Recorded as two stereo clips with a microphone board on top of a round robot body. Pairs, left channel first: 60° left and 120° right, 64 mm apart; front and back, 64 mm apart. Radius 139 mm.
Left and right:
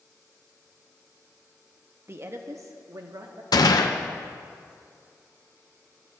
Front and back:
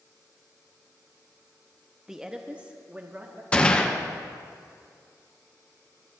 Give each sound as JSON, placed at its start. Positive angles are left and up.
{"t": 2.1, "sound": "a woman speaking", "azimuth_deg": -100, "distance_m": 0.8}
{"t": 3.5, "sound": "a gunshot", "azimuth_deg": 70, "distance_m": 0.7}